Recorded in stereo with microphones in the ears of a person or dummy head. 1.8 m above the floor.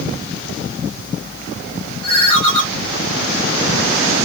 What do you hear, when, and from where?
2.0 s a ringtone: 30° left (ahead or behind), 2.5 m